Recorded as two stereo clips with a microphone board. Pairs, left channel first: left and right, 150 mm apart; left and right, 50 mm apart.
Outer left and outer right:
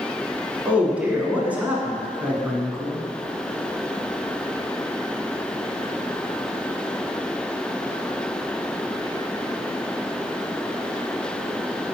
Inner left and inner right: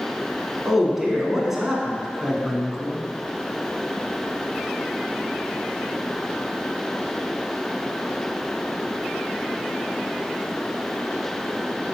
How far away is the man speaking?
About 1.2 m.